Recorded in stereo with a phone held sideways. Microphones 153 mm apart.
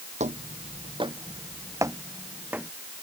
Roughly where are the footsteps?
Right.